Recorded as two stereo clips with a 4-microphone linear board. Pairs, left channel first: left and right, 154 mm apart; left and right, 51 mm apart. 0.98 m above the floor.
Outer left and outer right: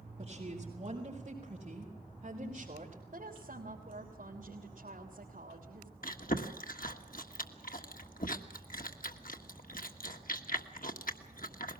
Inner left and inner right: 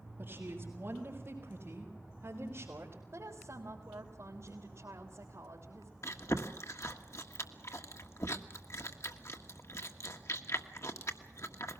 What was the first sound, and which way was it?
A woman speaking, 35° right (ahead or behind).